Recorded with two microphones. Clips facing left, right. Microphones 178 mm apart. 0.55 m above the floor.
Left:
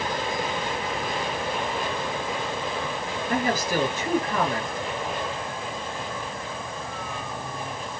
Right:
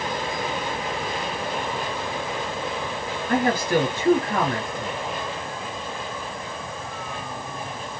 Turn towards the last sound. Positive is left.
turn(degrees=-65)  # may be behind; listen again after turning